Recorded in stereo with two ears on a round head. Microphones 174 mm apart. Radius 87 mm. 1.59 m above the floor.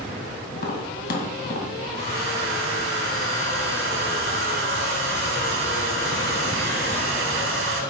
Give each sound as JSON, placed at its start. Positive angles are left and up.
{"t": 0.5, "sound": "tapping", "side_deg": 55, "distance_m": 2.0}
{"t": 1.9, "sound": "a hair dryer", "side_deg": -75, "distance_m": 4.5}